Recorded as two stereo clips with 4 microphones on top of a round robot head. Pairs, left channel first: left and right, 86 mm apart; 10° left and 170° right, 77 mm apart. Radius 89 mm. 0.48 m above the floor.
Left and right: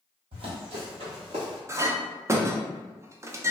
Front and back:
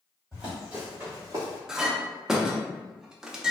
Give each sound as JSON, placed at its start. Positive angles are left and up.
{"t": 0.3, "sound": "running footsteps", "azimuth_deg": -85, "distance_m": 1.3}
{"t": 1.7, "sound": "a clink", "azimuth_deg": -95, "distance_m": 0.5}